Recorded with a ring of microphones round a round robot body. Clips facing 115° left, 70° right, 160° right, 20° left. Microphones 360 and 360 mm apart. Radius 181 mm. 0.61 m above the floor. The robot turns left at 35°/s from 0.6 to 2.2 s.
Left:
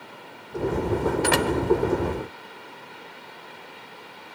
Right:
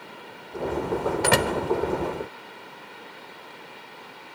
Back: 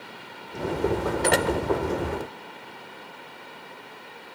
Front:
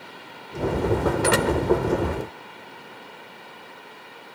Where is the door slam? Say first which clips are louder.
Left 1 dB, even; 55° right, 2.5 m; by 1.5 s 65° right, 2.5 m.